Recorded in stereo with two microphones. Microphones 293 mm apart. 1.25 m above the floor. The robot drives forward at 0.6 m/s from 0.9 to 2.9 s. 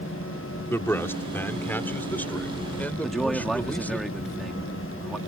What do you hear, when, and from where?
0.7 s a man speaking: 10° left (ahead or behind); by 4.0 s 5° left (ahead or behind)
3.0 s a man speaking: centre (ahead or behind)